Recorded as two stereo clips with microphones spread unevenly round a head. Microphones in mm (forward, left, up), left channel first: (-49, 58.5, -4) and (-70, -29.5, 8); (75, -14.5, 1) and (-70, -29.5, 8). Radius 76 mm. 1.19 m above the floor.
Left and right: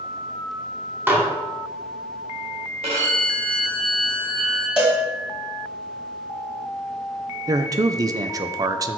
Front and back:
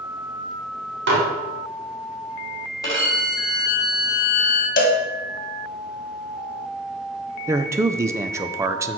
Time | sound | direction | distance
1.1 | dishes clattering | 170° right | 2 m
2.8 | a violin | 60° right | 2.5 m
4.8 | a cowbell | 20° right | 1.4 m
7.5 | a man speaking | 115° right | 0.5 m